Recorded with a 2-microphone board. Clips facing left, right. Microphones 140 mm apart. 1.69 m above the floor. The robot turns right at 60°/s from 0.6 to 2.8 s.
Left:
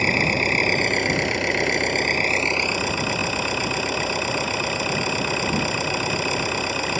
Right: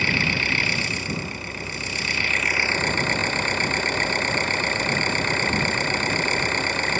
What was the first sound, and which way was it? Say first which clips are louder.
An engine running: left 5 dB; 40° left.